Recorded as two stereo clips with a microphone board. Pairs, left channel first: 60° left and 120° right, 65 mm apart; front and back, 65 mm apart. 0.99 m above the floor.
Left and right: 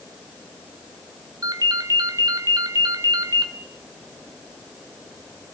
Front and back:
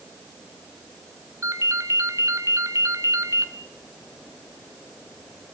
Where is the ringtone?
140° right, 2 m.